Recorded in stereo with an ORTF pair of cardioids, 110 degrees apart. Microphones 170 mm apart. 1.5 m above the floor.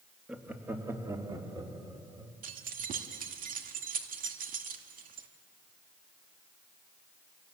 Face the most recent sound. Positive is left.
turn(degrees=-55)